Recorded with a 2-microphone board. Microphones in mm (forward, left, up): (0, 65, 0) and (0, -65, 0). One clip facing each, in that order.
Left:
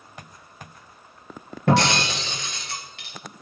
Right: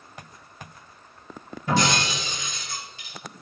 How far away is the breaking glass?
About 2.5 m.